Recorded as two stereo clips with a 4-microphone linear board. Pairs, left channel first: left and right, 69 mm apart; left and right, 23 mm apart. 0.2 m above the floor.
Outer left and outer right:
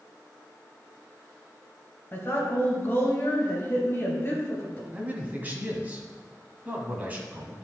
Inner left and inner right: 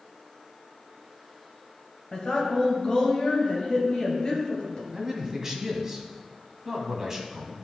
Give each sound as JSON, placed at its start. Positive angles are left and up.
{"t": 2.1, "sound": "a woman speaking", "side_deg": 35, "distance_m": 2.5}
{"t": 4.9, "sound": "a man speaking", "side_deg": -25, "distance_m": 1.2}